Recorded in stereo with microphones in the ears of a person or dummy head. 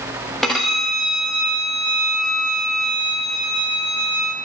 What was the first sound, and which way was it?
A violin, centre (ahead or behind).